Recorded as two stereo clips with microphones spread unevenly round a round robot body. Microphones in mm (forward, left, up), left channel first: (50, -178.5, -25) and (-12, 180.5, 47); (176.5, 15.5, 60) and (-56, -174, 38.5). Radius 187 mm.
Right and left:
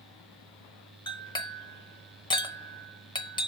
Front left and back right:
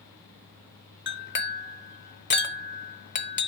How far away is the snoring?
No snoring in this recording.